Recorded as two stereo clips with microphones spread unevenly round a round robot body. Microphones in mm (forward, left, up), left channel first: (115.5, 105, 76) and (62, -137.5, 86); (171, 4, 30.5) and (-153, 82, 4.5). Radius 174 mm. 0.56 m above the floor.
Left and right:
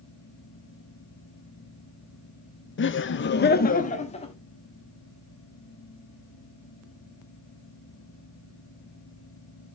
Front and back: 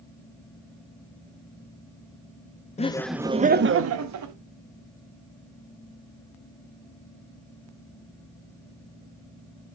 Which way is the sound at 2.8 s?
55° left.